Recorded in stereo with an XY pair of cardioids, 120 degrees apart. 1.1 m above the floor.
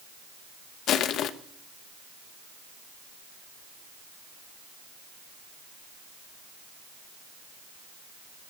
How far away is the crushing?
About 0.9 m.